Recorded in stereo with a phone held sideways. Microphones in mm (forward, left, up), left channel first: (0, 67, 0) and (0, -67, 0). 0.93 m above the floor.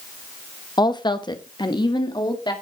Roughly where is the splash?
No splash in this recording.